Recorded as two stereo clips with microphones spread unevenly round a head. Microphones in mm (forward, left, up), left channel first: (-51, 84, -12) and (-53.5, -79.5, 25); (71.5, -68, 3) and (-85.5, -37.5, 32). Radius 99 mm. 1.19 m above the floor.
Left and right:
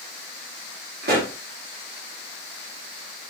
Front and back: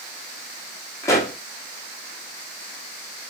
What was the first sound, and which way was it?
A pop, 85° right.